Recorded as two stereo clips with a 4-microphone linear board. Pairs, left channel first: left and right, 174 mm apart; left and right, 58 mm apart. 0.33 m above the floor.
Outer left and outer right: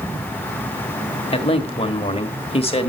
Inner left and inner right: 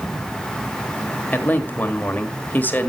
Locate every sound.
1.3 s a man speaking: 35° left (ahead or behind), 1.3 m